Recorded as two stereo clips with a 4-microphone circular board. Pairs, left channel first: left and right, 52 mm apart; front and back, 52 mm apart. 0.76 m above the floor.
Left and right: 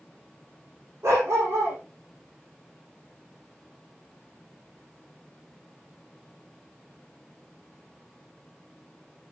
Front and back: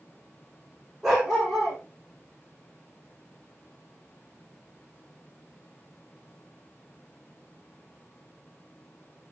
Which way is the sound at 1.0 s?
95° right.